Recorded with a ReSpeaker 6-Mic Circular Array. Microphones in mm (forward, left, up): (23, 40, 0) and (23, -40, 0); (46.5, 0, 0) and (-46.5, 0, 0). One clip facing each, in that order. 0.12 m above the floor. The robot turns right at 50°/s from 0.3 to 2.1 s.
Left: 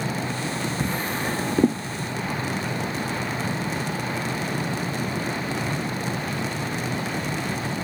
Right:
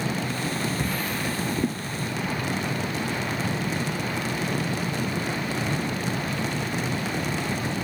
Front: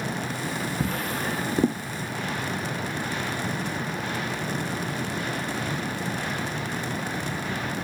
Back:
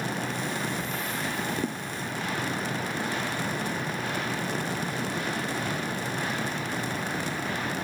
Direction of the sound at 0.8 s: 20° left.